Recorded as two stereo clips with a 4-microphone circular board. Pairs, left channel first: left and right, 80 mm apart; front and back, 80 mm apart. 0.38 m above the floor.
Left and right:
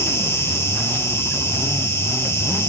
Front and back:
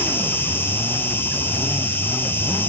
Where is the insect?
45° left, 0.8 m.